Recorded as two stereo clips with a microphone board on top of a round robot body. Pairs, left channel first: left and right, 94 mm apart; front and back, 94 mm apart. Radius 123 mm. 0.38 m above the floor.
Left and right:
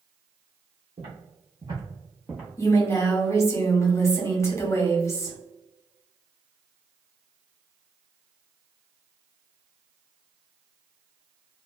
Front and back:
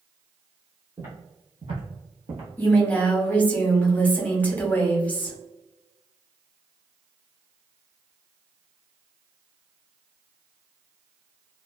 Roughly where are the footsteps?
Behind right.